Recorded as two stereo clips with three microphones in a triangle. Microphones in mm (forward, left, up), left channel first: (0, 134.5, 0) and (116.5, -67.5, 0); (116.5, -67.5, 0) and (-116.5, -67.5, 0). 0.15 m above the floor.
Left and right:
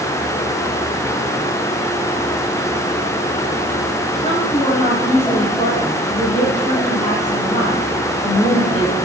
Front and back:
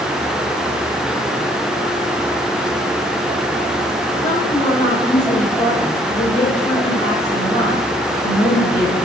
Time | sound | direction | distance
4.2 | a woman speaking | 60° left | 6 m